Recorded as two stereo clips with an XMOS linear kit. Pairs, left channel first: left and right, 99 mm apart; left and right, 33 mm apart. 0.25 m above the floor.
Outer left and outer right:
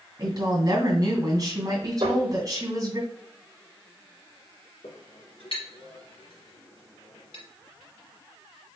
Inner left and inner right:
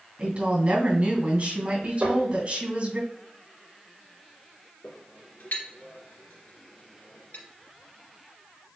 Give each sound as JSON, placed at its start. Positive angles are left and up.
{"t": 0.2, "sound": "a woman speaking", "side_deg": -40, "distance_m": 2.5}
{"t": 2.0, "sound": "tapping", "side_deg": -85, "distance_m": 2.5}
{"t": 4.8, "sound": "a clink", "side_deg": 70, "distance_m": 2.5}